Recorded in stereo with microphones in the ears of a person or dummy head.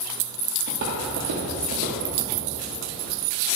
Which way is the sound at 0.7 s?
50° right (ahead or behind).